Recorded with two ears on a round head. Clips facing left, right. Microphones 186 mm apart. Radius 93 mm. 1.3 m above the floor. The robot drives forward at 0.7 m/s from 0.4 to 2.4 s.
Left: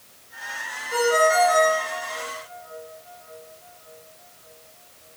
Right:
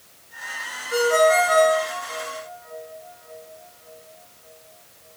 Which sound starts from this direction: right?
A ringtone, at 0.9 s.